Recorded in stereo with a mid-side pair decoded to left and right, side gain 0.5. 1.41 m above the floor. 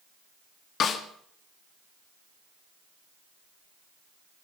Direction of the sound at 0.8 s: 55° left.